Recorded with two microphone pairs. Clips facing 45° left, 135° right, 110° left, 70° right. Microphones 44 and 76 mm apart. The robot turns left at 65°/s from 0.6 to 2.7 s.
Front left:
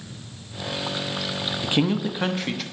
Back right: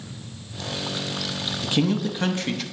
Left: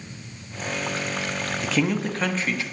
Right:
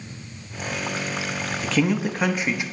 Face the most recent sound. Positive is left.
turn(degrees=-45)